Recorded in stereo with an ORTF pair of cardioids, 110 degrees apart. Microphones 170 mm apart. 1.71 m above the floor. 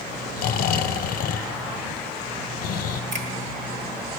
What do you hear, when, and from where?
0.4 s snoring: 60° left, 0.5 m
3.1 s a finger snap: 45° right, 1.7 m